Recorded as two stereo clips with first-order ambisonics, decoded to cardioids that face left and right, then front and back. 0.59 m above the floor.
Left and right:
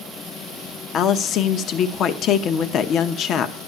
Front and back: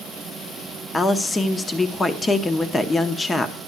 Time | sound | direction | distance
0.9 | a woman speaking | 70° left | 0.7 m